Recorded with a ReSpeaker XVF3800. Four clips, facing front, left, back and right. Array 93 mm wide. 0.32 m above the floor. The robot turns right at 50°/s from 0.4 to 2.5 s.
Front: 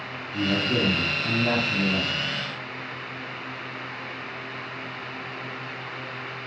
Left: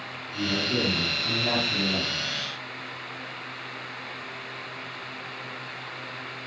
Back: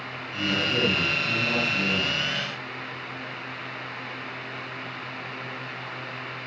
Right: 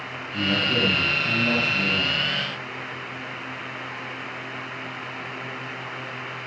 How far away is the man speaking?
About 3 m.